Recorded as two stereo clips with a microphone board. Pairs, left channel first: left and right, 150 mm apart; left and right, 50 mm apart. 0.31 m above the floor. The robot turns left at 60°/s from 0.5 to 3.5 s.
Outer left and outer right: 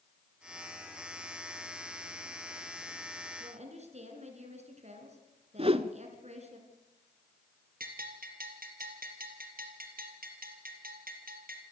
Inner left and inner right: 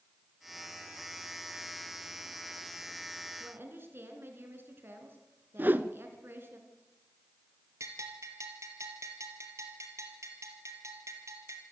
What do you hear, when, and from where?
3.4 s a woman speaking: 55° right (ahead or behind), 4 m; by 6.6 s 50° right (ahead or behind), 4 m
5.6 s a whoosh: 40° right (ahead or behind), 0.8 m
7.8 s a bell: 80° right, 3 m